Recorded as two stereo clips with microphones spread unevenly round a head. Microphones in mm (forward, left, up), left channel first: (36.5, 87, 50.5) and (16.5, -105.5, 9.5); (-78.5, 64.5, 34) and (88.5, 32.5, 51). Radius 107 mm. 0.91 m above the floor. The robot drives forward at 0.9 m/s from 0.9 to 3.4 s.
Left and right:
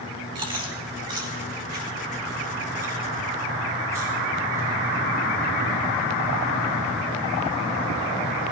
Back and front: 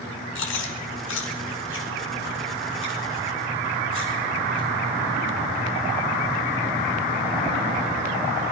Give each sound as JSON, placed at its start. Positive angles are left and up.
{"t": 0.3, "sound": "chewing", "azimuth_deg": -165, "distance_m": 2.0}